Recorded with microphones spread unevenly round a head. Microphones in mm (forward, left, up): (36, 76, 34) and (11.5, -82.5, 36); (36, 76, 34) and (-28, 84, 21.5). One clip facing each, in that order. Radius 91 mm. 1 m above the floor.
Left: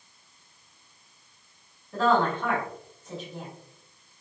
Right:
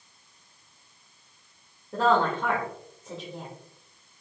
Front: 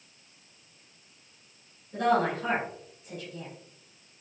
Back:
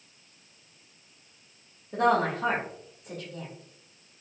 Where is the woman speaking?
160° right, 1.7 m.